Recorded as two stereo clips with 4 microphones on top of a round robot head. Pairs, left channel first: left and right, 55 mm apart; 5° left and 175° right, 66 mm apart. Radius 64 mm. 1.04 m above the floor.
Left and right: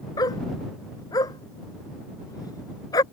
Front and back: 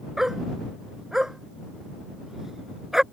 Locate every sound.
0.2 s a dog barking: 100° left